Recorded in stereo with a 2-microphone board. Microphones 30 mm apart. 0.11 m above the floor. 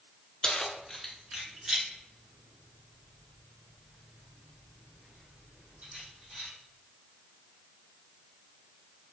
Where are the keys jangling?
25° left (ahead or behind), 0.8 m; by 6.5 s 60° right (ahead or behind), 3.5 m.